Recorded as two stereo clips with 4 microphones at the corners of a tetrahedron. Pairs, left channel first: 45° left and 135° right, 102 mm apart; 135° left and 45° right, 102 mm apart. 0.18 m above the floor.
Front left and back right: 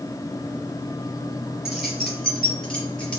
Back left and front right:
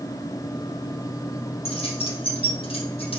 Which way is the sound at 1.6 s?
140° left.